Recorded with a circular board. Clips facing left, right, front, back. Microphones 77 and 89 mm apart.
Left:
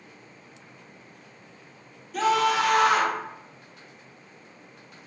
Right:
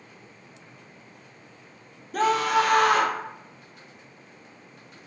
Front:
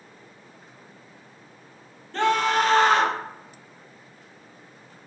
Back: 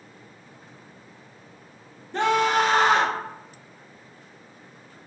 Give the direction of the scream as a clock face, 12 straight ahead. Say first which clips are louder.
Even, even; 4 o'clock.